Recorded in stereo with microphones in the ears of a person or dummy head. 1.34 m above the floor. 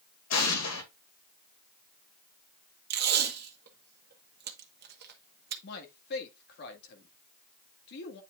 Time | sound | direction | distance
0.3 | an explosion | 80° left | 2 m
2.9 | tape being pulled | 55° right (ahead or behind) | 1.3 m
5.6 | a man speaking | 55° left (ahead or behind) | 1.8 m